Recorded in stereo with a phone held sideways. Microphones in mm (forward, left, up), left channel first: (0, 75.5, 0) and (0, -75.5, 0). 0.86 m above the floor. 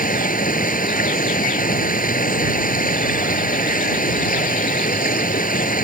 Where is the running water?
75° left (ahead or behind).